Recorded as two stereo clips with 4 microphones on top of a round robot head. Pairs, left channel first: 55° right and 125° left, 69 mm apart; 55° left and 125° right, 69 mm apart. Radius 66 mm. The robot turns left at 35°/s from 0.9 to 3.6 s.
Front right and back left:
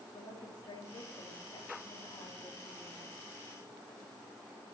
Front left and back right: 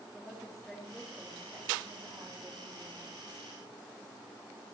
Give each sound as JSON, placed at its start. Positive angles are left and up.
{"t": 0.1, "sound": "a woman speaking", "azimuth_deg": -35, "distance_m": 2.0}